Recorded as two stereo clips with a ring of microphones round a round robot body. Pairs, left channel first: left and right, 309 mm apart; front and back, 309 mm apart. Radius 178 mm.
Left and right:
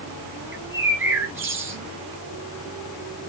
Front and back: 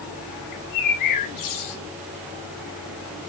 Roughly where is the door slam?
No door slam in this recording.